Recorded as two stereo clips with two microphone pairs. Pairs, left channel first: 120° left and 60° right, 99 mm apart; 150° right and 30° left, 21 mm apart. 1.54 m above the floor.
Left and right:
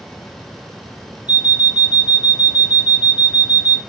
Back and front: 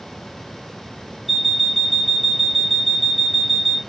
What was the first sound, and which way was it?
An alarm clock, 75° right.